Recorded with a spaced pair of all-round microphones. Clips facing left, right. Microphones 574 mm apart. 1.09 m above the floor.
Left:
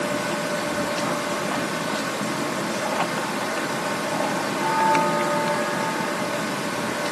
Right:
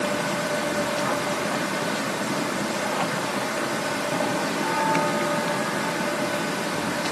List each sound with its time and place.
Only background noise.